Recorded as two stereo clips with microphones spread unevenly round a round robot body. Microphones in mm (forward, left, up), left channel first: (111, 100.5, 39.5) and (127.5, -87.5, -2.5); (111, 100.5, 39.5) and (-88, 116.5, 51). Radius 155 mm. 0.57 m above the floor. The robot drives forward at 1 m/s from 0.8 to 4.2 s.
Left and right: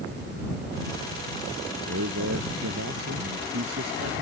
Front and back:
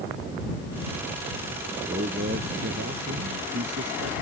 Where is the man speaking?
120° right; by 4.1 s 135° right.